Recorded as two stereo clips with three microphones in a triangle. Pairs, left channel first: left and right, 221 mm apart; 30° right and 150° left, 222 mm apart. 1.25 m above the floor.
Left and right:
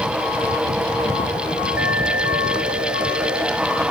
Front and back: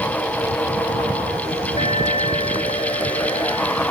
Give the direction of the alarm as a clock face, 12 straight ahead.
3 o'clock.